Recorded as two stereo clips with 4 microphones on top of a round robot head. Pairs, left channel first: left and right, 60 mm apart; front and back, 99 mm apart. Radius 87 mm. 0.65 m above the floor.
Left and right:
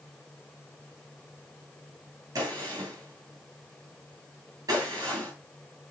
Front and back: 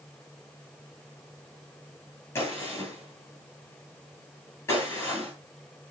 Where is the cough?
No cough in this recording.